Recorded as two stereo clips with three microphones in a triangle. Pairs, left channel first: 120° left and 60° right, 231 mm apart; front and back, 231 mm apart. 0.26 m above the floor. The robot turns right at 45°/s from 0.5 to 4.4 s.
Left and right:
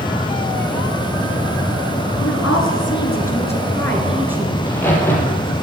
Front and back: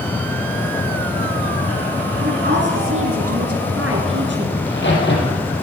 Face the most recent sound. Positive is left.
turn(degrees=40)